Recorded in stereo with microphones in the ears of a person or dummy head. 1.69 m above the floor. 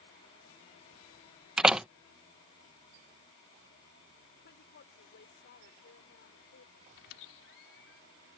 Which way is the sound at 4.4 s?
55° left (ahead or behind).